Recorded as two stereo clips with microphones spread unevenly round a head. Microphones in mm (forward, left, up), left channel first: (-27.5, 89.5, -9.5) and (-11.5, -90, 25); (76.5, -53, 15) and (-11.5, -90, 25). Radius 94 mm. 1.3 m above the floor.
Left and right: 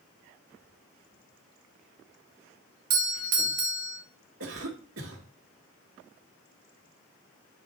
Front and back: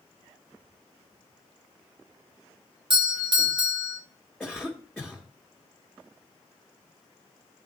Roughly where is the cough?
Ahead right.